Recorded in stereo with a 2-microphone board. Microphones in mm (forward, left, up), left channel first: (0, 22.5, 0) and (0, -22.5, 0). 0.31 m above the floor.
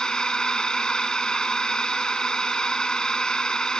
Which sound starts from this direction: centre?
A drone, at 0.0 s.